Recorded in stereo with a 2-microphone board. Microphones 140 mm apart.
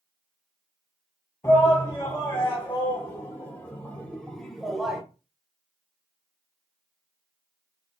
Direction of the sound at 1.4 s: 20° left (ahead or behind).